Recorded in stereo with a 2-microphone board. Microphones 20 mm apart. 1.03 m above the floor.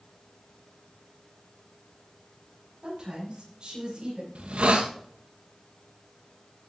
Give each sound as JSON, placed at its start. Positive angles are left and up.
{"t": 2.8, "sound": "a woman speaking", "side_deg": -40, "distance_m": 5.5}
{"t": 4.3, "sound": "a hiss", "side_deg": -65, "distance_m": 1.2}